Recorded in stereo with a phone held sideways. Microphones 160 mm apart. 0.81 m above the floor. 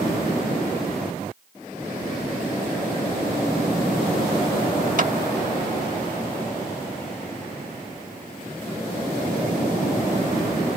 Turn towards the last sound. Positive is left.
turn(degrees=-55)  # may be behind; listen again after turning